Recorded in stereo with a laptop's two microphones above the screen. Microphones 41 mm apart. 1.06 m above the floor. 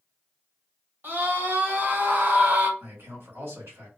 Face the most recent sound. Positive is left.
turn(degrees=-70)  # may be behind; listen again after turning